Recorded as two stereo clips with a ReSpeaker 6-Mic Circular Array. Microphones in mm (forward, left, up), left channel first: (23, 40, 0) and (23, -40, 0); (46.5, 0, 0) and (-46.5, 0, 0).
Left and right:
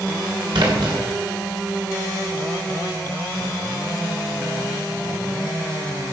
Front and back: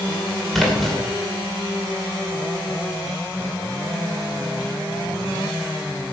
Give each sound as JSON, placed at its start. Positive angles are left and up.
{"t": 0.5, "sound": "a splash", "azimuth_deg": -90, "distance_m": 2.5}